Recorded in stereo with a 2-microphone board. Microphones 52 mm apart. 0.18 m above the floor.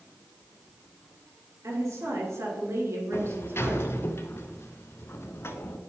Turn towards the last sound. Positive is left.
turn(degrees=55)  # may be behind; listen again after turning